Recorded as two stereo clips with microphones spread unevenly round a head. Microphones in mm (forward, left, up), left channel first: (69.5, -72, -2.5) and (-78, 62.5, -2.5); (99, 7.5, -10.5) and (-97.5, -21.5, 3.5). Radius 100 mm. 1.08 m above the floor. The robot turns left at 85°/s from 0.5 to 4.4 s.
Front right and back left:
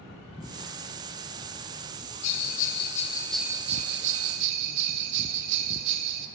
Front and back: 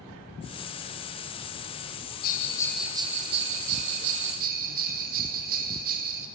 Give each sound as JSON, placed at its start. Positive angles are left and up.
{"t": 2.2, "sound": "a bell", "azimuth_deg": -35, "distance_m": 0.6}